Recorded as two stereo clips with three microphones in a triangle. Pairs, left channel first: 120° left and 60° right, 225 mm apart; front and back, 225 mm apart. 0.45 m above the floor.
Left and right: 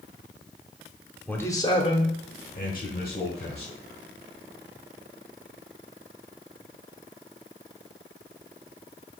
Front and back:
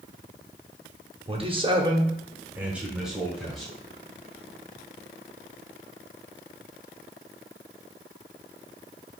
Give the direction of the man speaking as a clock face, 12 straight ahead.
5 o'clock.